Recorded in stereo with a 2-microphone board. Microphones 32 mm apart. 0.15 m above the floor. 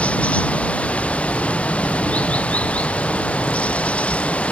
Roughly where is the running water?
Left.